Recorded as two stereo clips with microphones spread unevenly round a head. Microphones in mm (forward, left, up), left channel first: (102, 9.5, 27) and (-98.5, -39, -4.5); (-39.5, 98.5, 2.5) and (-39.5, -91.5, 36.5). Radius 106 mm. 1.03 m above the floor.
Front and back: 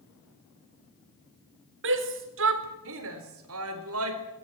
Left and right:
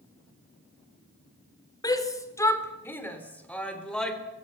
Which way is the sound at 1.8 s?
160° left.